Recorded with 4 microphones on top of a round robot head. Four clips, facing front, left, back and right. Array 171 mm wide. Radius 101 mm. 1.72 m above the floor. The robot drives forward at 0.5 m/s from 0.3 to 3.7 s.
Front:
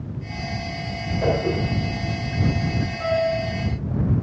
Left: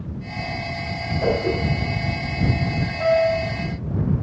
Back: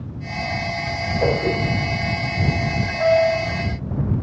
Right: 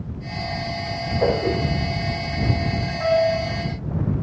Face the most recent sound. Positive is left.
turn(degrees=165)